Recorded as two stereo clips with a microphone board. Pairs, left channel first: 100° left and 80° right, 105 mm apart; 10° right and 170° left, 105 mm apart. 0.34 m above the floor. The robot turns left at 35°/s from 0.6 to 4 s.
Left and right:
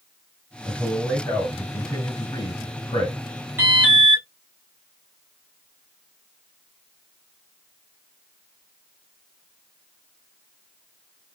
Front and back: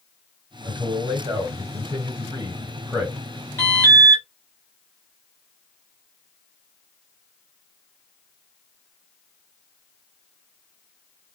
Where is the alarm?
30° right, 2.5 m; by 4.2 s 45° right, 2.5 m.